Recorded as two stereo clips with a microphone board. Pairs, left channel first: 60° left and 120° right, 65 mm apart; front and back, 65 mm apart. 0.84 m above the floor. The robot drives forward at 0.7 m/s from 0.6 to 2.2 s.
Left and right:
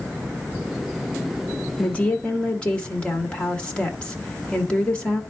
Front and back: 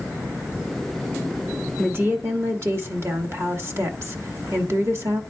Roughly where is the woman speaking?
Behind left.